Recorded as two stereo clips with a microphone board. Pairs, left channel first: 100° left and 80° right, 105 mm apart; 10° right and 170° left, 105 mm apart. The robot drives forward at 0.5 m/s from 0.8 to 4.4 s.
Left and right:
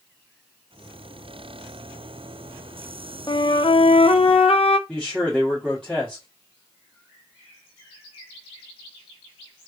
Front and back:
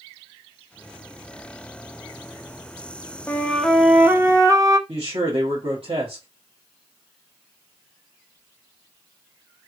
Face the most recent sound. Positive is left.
turn(degrees=180)